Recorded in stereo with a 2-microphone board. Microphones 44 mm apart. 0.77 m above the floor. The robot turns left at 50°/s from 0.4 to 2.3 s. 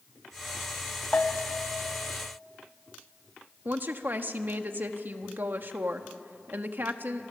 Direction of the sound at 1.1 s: 30° left (ahead or behind).